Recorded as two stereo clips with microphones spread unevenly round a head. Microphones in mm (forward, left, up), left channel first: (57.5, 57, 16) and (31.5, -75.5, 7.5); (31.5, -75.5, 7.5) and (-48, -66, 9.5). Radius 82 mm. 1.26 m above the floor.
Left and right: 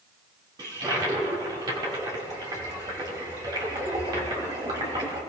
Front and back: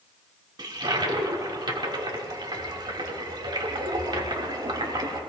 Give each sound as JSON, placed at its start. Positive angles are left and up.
{"t": 0.6, "sound": "a toilet flushing", "azimuth_deg": -165, "distance_m": 2.5}